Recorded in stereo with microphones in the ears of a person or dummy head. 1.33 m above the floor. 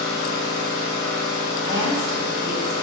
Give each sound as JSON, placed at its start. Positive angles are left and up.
{"t": 0.0, "sound": "an engine running", "side_deg": 25, "distance_m": 1.2}
{"t": 1.6, "sound": "a woman speaking", "side_deg": -20, "distance_m": 1.1}